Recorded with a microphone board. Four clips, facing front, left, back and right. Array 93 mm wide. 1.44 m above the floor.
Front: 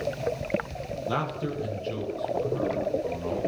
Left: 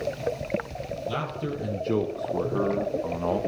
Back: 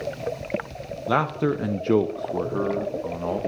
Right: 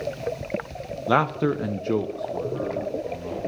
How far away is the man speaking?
About 1.1 m.